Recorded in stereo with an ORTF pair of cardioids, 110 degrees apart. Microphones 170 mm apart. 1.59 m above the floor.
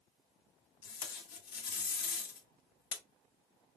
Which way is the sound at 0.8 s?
70° left.